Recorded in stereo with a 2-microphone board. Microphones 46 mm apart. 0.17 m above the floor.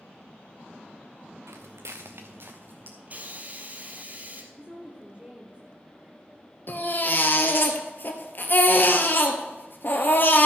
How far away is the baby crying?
About 1.6 m.